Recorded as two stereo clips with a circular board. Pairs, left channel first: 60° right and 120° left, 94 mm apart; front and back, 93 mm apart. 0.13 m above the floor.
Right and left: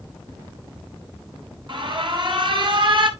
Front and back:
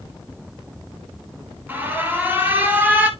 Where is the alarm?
115° left, 1.4 m.